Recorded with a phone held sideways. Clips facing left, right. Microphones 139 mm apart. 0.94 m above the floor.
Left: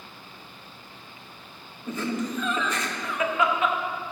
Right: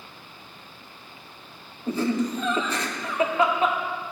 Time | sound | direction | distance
1.9 | laughter | 35° right (ahead or behind) | 1.6 m